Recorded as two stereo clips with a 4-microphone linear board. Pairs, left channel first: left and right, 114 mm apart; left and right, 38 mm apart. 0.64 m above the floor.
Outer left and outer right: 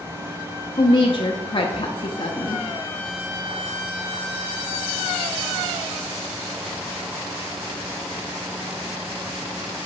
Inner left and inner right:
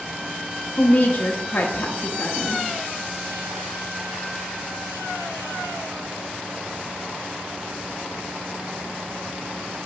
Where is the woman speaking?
45° left (ahead or behind), 0.8 m.